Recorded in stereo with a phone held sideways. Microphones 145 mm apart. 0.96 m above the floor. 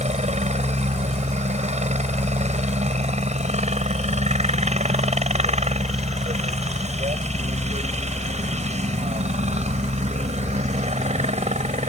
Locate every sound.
0.0 s a helicopter: 50° right (ahead or behind)